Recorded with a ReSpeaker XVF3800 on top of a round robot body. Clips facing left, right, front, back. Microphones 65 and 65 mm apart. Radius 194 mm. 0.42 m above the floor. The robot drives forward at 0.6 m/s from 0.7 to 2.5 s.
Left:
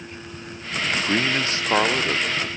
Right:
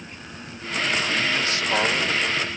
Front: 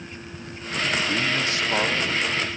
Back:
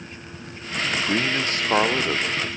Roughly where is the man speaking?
Behind left.